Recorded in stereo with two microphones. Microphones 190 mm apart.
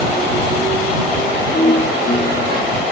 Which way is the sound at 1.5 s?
50° left (ahead or behind).